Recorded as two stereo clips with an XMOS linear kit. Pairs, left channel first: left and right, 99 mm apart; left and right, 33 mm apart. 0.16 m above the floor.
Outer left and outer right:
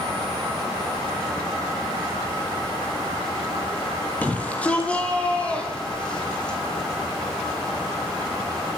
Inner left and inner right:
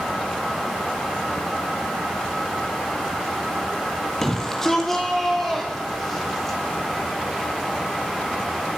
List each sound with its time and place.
4.2 s a shout: 15° left (ahead or behind), 3.5 m; by 6.6 s 10° left (ahead or behind), 7 m